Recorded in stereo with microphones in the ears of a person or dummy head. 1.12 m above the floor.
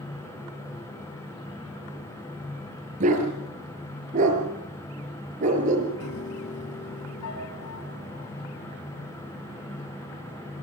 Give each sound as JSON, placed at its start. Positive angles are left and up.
{"t": 3.0, "sound": "a dog barking", "side_deg": -40, "distance_m": 5.0}
{"t": 6.0, "sound": "a piano", "side_deg": 75, "distance_m": 6.5}